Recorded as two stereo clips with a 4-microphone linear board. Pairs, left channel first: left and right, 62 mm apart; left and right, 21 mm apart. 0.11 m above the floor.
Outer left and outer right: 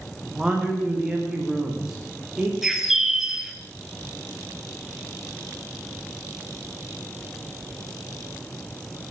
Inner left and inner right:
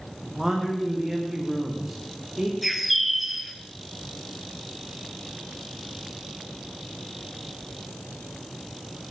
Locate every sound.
0.2 s a man speaking: 10° right (ahead or behind), 7 m
2.6 s a bird: 5° right (ahead or behind), 2.5 m